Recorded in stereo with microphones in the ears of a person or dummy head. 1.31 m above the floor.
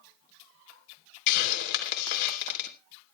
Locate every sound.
1.3 s a hiss: 70° left (ahead or behind), 3 m